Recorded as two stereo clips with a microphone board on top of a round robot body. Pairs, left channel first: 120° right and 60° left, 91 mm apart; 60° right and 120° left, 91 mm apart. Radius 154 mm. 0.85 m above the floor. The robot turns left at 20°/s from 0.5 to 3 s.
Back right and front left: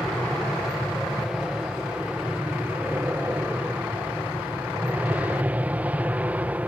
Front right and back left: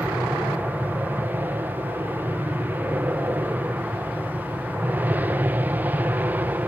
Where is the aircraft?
150° left; by 6.7 s 100° left.